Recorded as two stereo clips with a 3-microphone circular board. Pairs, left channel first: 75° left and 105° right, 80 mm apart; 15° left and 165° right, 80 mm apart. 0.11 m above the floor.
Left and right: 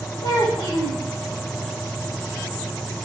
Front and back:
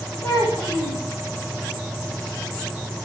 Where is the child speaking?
85° left, 4.5 m.